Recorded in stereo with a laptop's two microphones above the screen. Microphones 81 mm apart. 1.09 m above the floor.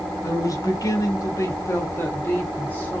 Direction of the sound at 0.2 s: 40° left (ahead or behind).